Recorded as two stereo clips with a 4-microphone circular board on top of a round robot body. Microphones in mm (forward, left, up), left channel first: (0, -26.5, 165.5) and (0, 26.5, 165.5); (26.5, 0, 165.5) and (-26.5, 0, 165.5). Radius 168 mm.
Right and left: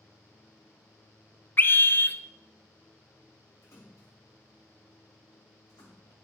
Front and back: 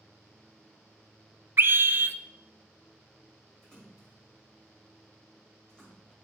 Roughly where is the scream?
Behind right.